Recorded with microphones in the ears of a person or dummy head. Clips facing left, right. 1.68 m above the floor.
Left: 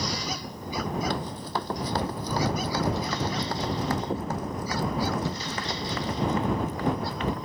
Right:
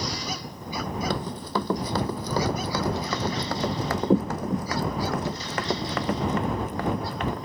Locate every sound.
1.1 s running footsteps: 60° right (ahead or behind); by 7.5 s 50° right (ahead or behind)